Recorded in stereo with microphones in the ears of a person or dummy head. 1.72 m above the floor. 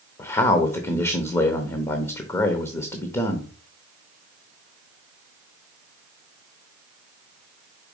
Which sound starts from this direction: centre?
A man speaking, at 0.2 s.